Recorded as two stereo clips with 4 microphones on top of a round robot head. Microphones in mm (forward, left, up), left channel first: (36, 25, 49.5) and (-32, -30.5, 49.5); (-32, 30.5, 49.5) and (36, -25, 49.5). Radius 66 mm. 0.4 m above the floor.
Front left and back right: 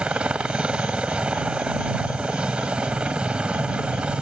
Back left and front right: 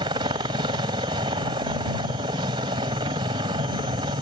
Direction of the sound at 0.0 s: 65° right.